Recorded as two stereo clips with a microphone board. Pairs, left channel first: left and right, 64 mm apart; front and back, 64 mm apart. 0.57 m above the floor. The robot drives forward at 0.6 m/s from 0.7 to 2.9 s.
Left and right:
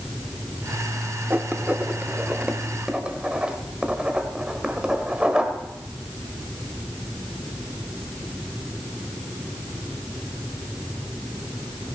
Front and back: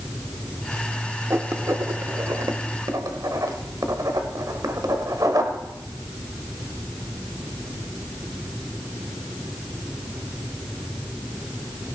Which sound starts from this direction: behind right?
Writing, at 1.3 s.